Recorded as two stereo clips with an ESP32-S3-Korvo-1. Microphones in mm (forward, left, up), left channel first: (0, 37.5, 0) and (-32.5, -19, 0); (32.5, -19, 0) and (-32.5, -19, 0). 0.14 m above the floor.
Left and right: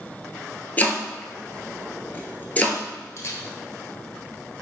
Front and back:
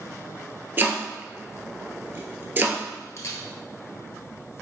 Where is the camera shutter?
30° left, 0.9 m.